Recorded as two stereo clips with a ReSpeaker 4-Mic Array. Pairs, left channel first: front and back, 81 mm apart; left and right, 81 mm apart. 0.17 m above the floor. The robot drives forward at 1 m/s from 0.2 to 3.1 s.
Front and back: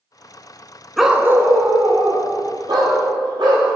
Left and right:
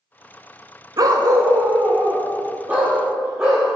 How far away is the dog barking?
About 0.6 m.